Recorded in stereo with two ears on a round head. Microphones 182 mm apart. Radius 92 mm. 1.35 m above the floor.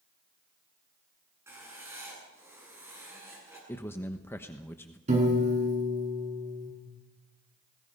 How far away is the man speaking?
About 1.0 m.